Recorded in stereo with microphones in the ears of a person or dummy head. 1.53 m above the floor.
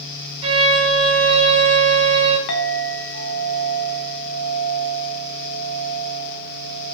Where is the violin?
30° right (ahead or behind), 1.7 m.